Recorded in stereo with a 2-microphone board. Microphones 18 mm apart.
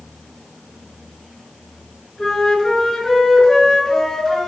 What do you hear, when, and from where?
2.2 s a flute: 45° left (ahead or behind), 2.5 m